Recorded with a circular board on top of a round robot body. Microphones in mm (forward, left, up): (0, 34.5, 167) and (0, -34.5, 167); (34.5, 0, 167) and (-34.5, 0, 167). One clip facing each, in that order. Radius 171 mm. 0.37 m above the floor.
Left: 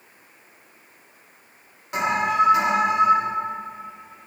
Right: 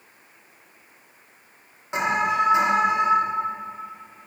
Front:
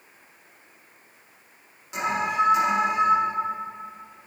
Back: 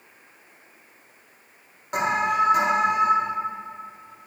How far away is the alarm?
About 2.5 m.